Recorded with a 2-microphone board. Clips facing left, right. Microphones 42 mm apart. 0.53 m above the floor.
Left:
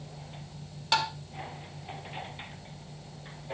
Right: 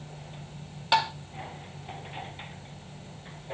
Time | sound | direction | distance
0.9 | tapping | 15° right (ahead or behind) | 1.6 m